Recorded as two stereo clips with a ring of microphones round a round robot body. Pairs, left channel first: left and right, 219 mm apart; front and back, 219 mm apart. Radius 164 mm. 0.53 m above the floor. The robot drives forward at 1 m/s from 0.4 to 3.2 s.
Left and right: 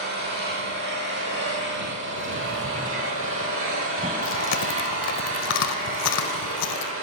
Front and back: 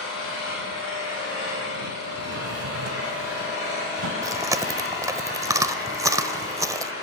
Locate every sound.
0.0 s an engine running: 50° right, 7.5 m; by 7.0 s 70° right, 6 m
2.2 s a drawer: 125° right, 0.5 m; by 4.1 s 160° right, 1.4 m
4.2 s chewing: 105° left, 0.7 m